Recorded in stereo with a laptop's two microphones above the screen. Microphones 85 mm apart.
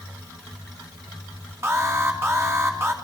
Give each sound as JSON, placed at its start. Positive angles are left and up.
{"t": 1.6, "sound": "an alarm", "side_deg": -30, "distance_m": 2.5}